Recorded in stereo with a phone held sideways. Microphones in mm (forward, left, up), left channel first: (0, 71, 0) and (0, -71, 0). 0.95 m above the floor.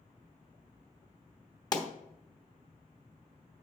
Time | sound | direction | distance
1.7 | a pop | 30° left (ahead or behind) | 1.1 m